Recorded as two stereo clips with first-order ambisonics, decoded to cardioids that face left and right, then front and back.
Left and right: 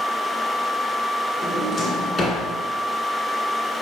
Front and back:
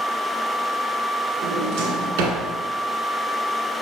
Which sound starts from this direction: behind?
A drawer, at 1.4 s.